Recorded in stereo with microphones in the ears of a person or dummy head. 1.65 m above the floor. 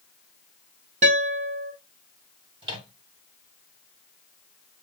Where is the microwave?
25° right (ahead or behind), 0.8 m.